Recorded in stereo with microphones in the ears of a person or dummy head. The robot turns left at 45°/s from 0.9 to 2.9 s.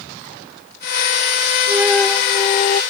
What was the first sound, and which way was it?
A flute, 165° right.